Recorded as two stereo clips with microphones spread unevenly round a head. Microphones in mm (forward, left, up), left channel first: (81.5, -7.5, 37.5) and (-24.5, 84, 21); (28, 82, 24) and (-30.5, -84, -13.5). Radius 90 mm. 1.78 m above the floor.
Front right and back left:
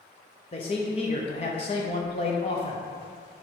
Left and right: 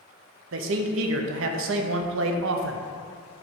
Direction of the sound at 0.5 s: 95° right.